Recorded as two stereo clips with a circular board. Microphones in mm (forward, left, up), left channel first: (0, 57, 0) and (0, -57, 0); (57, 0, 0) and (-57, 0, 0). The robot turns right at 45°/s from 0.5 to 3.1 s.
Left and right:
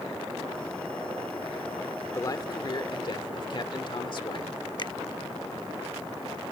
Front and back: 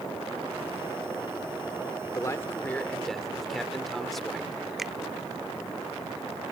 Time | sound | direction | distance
2.1 | a man speaking | 45° left | ?
4.8 | a finger snap | 95° left | ?